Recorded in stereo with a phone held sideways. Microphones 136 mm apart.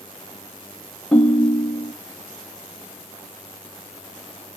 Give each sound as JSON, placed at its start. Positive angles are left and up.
{"t": 1.1, "sound": "a ringtone", "side_deg": 5, "distance_m": 0.7}